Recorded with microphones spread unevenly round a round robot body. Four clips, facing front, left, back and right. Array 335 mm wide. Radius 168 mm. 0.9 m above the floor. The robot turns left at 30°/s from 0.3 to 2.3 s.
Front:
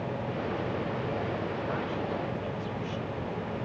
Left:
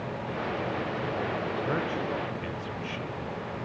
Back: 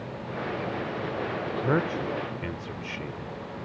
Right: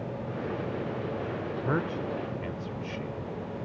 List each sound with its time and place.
1.6 s a man speaking: 160° right; by 3.2 s straight behind